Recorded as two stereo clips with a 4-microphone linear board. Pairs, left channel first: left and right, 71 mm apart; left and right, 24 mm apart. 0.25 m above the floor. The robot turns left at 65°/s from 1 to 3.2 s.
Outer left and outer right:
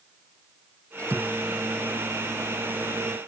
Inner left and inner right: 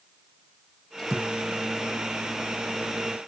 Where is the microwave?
20° left; by 3.2 s 120° right.